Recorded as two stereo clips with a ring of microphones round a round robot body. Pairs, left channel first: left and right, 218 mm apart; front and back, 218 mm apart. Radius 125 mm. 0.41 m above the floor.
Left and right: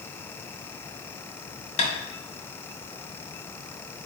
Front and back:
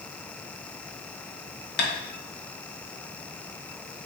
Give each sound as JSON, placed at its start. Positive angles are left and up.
{"t": 1.8, "sound": "tapping", "azimuth_deg": 35, "distance_m": 1.1}